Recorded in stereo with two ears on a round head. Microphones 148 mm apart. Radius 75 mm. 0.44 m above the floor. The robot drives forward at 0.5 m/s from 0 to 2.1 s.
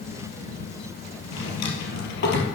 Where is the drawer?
75° left (ahead or behind), 2.5 m; by 2.5 s 70° left (ahead or behind), 2.5 m.